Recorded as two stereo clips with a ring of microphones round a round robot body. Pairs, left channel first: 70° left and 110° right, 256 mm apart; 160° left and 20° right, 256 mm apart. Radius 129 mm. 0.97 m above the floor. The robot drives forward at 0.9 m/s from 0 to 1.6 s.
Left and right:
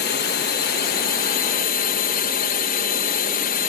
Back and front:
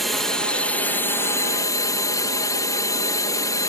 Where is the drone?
65° left; by 3.7 s 90° left.